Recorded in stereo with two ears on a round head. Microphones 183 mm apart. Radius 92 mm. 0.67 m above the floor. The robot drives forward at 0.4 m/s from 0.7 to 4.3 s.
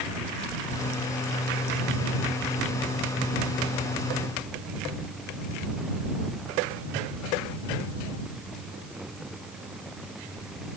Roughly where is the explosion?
I don't hear an explosion.